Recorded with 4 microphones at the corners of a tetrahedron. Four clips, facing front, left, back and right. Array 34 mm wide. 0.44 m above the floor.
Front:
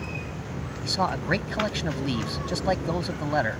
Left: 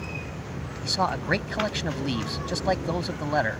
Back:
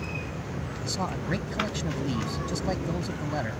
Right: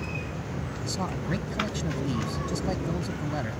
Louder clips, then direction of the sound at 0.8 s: Left 8 dB, front 6 dB; 55° left.